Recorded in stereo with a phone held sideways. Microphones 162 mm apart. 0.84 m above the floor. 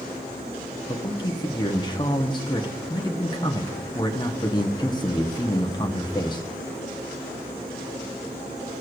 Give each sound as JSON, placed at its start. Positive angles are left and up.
{"t": 0.9, "sound": "a man speaking", "side_deg": 25, "distance_m": 1.1}